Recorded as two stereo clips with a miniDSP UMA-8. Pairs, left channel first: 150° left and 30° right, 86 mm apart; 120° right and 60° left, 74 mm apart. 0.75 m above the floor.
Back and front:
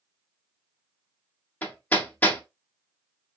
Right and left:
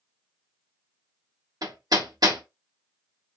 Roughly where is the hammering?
Left.